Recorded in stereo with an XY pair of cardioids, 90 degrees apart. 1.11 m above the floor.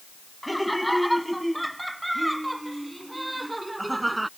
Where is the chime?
No chime in this recording.